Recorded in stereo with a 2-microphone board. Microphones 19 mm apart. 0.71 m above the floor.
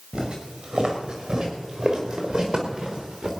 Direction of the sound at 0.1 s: 45° right (ahead or behind).